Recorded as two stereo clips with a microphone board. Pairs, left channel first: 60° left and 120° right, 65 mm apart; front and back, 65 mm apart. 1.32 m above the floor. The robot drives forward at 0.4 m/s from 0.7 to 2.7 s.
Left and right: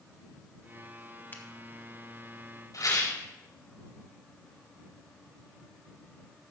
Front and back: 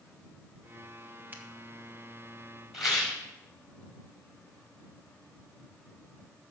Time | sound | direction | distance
1.3 | a finger snap | 120° left | 1.2 m
2.7 | a rattle | 90° left | 4.5 m